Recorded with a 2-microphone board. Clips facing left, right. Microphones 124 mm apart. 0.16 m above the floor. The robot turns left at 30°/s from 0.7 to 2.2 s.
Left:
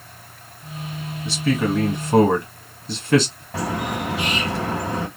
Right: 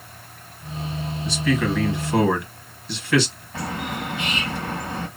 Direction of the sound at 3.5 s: 80° left.